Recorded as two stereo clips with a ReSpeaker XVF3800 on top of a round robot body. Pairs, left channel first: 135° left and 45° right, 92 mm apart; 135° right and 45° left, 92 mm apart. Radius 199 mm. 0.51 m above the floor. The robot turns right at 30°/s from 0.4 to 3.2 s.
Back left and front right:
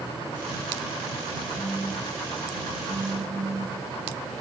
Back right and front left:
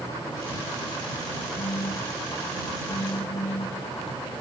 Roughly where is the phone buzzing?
Behind right.